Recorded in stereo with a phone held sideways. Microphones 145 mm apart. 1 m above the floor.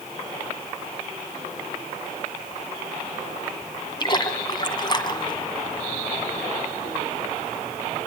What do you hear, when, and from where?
4.0 s a splash: 30° left (ahead or behind), 1.9 m